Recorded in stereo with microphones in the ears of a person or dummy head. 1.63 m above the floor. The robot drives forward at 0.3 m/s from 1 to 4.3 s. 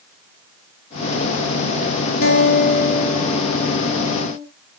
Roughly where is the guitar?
Left.